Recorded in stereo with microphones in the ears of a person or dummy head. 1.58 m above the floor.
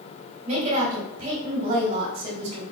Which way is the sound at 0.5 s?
45° right (ahead or behind).